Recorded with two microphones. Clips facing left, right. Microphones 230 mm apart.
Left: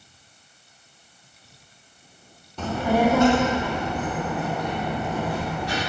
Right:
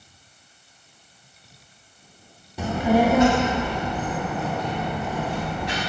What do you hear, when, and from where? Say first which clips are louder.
2.6 s a child speaking: right 2 dB; 10° right (ahead or behind), 0.6 m; by 5.8 s 20° right (ahead or behind), 4.5 m